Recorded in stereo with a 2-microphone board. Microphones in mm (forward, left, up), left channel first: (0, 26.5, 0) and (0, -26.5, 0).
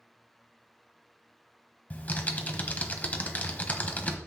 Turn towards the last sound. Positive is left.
turn(degrees=30)  # may be behind; listen again after turning